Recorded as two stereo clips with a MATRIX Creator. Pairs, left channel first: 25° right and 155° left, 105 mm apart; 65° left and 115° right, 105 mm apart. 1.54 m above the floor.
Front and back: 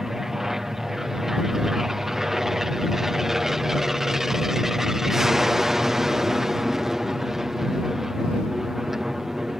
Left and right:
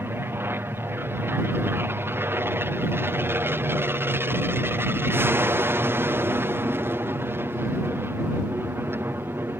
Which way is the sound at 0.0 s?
120° right.